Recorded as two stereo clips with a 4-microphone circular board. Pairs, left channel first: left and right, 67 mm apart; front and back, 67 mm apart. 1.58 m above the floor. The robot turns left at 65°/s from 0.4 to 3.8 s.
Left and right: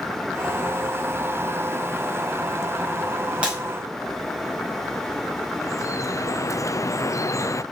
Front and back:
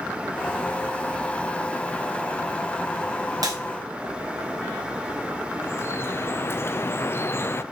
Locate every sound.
3.4 s breaking glass: 160° right, 5.5 m; by 3.6 s 170° right, 5.5 m
5.6 s dripping: 55° left, 0.6 m